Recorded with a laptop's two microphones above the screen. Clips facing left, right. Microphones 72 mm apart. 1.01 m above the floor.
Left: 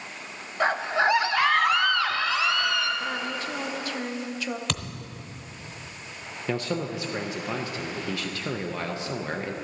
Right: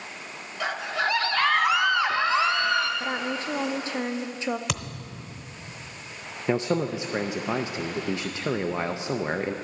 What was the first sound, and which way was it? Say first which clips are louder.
A scream: left 5 dB; 40° left (ahead or behind).